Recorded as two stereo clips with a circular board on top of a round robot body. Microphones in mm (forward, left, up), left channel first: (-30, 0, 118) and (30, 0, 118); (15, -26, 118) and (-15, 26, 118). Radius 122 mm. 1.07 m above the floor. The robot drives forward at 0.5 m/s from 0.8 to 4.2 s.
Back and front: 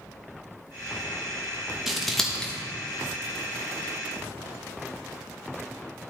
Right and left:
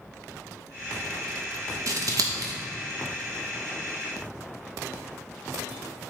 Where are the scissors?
85° left, 0.9 m; by 2.5 s 105° left, 1.0 m.